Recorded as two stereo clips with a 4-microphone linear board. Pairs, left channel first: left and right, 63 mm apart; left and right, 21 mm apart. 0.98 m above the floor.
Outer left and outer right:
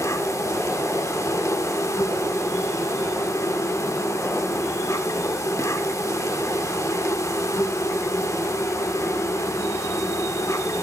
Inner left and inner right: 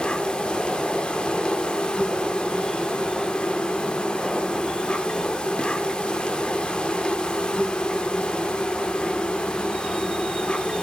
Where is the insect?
55° left (ahead or behind), 1.3 m.